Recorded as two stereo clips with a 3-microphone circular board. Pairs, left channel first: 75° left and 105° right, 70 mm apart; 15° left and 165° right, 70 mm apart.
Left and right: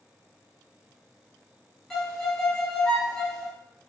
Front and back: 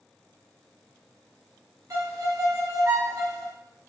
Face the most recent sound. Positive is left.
turn(degrees=155)